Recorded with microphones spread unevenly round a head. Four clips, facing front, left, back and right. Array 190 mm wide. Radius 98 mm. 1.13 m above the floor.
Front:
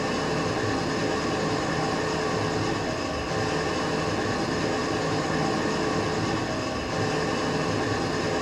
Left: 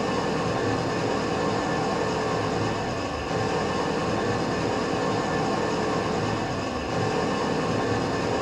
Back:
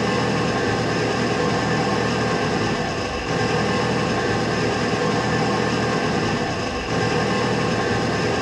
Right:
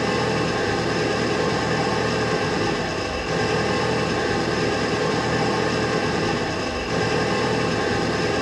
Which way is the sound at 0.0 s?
155° right.